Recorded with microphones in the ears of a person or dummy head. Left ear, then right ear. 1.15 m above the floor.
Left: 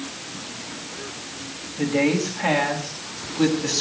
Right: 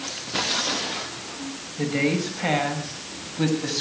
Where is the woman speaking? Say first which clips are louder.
Left 3 dB; 10° right (ahead or behind), 6 m; by 3.8 s 5° right (ahead or behind), 7 m.